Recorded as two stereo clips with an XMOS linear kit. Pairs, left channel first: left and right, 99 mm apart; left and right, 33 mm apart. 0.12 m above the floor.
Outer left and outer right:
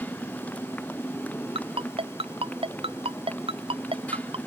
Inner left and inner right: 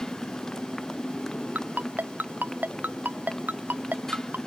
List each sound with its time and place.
0.0 s a motorcycle: 15° left (ahead or behind)
1.6 s a ringtone: 85° right